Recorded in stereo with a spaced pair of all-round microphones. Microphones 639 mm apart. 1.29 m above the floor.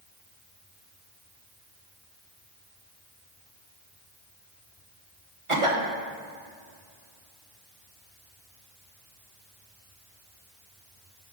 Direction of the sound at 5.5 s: 50° right (ahead or behind).